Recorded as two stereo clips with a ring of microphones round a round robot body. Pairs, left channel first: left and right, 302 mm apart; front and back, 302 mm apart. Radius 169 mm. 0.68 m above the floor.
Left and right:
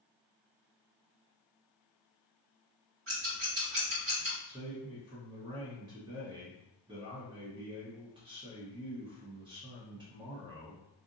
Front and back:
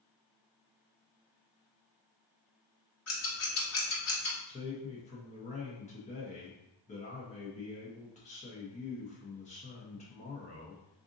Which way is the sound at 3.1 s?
40° right.